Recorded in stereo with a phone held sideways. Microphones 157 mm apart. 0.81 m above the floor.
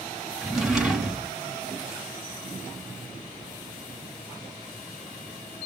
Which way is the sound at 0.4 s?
5° right (ahead or behind).